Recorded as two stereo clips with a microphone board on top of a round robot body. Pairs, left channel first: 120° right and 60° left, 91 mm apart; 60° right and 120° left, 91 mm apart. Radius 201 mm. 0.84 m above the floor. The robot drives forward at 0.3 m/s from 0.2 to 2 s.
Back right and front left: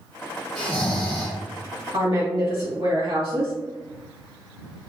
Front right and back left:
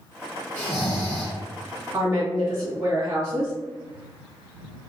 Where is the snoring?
135° right, 0.7 m; by 1.4 s 150° right, 0.9 m.